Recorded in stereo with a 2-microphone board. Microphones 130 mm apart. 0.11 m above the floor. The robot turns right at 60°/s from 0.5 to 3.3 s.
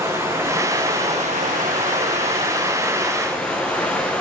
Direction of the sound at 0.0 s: 160° right.